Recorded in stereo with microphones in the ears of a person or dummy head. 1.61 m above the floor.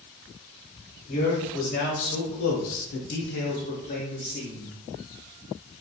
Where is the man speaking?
40° left (ahead or behind), 1.2 m; by 4.8 s 30° left (ahead or behind), 1.2 m.